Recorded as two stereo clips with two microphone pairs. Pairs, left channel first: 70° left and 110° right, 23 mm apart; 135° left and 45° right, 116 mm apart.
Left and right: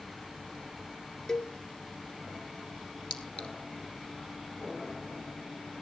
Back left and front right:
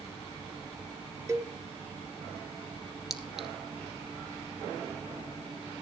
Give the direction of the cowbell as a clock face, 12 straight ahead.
12 o'clock.